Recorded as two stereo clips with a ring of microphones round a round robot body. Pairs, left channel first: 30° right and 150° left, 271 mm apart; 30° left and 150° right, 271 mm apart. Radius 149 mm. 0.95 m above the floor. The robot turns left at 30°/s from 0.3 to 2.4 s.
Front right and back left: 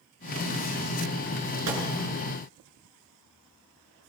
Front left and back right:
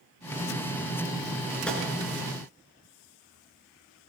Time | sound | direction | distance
1.7 | a gunshot | 115° left | 6.5 m